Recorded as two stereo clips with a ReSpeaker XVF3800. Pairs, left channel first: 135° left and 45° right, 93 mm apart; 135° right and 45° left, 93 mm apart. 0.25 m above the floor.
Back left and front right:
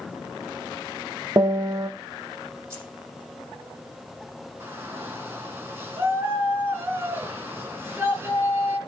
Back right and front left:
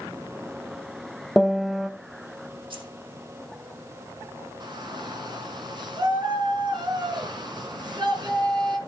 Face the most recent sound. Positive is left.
turn(degrees=15)